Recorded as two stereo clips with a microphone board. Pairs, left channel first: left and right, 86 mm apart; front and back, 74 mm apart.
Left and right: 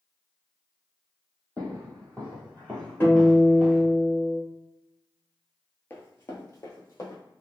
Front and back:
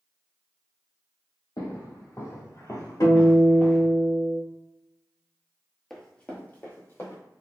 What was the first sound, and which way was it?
Footsteps, 20° left.